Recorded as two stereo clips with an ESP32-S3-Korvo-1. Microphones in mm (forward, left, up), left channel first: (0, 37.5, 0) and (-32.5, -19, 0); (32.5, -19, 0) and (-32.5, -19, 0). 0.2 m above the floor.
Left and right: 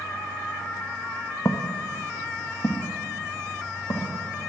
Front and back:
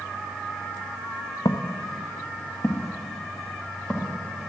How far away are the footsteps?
About 0.7 m.